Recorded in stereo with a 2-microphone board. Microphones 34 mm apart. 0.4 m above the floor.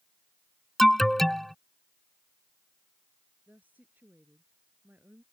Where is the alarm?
5° left (ahead or behind).